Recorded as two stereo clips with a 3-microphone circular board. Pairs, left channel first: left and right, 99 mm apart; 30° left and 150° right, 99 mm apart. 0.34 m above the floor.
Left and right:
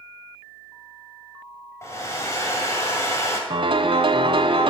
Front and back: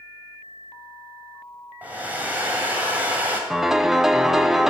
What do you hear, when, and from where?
1.8 s a hair dryer: 140° left, 1.9 m
3.5 s a piano: 65° right, 0.6 m